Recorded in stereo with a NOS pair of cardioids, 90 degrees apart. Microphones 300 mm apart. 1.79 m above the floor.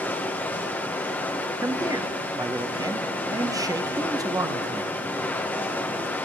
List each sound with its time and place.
0.0 s running water: 5° left, 1.6 m
1.6 s a man speaking: 15° right, 1.0 m